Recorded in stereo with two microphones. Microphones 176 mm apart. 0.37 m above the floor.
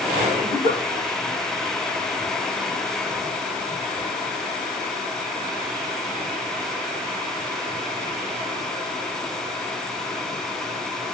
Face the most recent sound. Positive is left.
turn(degrees=50)  # may be behind; listen again after turning